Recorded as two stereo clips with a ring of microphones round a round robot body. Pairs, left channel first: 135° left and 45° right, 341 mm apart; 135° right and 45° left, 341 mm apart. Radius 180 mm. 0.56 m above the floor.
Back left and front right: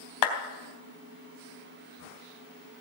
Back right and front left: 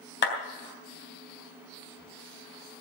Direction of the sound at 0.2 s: 165° left.